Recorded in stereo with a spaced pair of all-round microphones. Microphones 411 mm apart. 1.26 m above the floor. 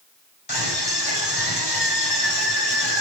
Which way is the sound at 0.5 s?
75° left (ahead or behind).